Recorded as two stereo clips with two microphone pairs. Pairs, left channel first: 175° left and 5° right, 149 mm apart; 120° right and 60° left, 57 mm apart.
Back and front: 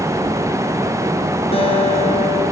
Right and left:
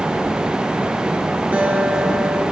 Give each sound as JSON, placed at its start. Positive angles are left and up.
{"t": 1.5, "sound": "a guitar", "azimuth_deg": 125, "distance_m": 5.5}